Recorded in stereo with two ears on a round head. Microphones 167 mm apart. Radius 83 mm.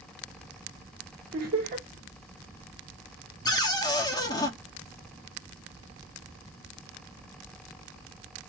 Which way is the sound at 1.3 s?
50° right (ahead or behind).